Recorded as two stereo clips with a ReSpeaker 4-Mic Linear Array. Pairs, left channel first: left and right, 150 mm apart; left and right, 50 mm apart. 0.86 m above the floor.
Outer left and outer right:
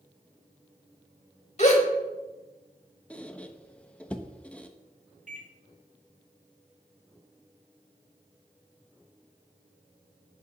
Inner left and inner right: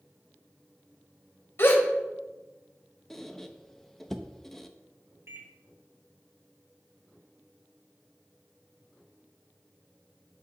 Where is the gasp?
50° left (ahead or behind), 1.2 m.